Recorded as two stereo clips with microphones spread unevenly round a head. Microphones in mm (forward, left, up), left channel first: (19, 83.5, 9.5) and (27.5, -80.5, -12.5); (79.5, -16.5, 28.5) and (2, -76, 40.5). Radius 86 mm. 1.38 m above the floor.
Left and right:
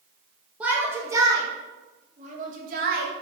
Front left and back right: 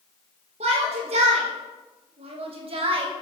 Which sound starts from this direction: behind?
A shout, at 0.6 s.